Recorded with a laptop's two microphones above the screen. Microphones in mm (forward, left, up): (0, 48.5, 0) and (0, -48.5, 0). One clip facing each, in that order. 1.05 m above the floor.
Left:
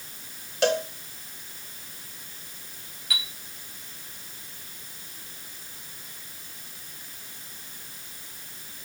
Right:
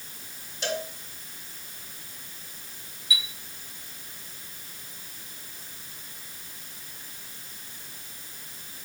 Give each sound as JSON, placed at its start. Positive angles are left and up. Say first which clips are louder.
{"t": 0.6, "sound": "a cowbell", "louder": "left 8 dB", "side_deg": 75, "distance_m": 2.5}
{"t": 3.1, "sound": "a chime", "louder": "right 1 dB", "side_deg": 65, "distance_m": 1.4}